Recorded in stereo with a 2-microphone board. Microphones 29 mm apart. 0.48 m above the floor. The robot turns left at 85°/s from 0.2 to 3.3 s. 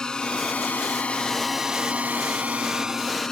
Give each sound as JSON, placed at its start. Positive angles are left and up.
{"t": 0.0, "sound": "a drone", "side_deg": 30}